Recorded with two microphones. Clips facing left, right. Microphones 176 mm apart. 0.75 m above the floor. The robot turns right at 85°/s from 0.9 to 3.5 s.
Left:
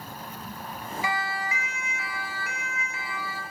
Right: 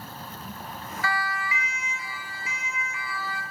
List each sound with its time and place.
1.0 s a siren: 15° left (ahead or behind), 2 m; by 3.4 s centre (ahead or behind), 4 m